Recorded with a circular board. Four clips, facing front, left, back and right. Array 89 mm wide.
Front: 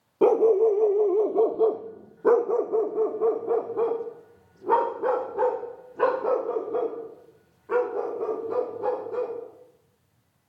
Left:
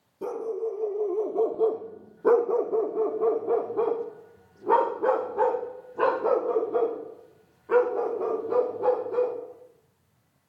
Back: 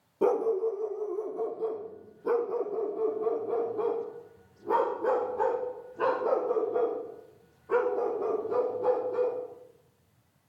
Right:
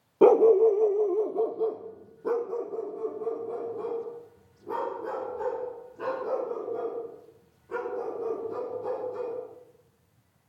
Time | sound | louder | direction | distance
0.2 | a dog barking | right 13 dB, front 8 dB | 65° right | 0.9 m